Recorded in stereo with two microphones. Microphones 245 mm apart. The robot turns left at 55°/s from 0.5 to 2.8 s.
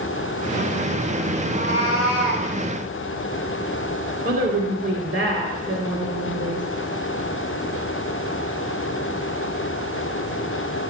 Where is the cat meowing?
35° right, 5 m; by 2.5 s 90° right, 5 m.